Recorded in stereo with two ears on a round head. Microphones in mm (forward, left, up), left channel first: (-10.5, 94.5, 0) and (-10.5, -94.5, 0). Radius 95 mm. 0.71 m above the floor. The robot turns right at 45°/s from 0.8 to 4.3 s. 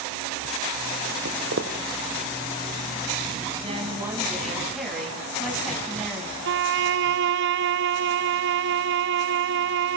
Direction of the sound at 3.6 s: 30° right.